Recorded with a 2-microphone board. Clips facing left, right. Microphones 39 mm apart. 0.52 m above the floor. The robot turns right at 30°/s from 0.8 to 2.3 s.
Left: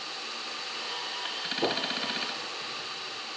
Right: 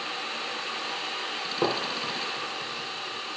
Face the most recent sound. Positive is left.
turn(degrees=-40)  # may be behind; listen again after turning